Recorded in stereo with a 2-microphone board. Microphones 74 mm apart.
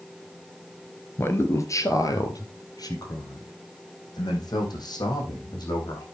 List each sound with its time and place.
1.2 s a man speaking: 35° left (ahead or behind), 1.3 m; by 6.1 s 70° left (ahead or behind), 5.5 m